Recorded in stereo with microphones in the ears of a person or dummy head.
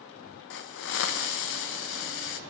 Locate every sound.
0.5 s a hiss: 60° left (ahead or behind), 0.6 m